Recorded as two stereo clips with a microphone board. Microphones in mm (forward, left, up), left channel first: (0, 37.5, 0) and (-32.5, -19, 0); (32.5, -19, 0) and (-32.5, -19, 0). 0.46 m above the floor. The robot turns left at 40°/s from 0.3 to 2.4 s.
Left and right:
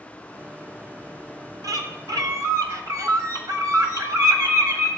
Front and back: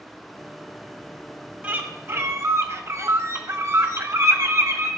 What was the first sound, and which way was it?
A bird, 115° right.